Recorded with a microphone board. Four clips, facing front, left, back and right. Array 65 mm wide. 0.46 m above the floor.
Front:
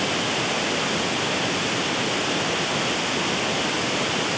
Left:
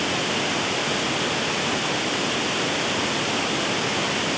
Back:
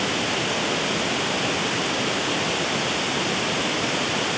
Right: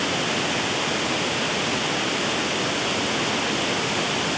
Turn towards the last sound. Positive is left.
No sound to turn to.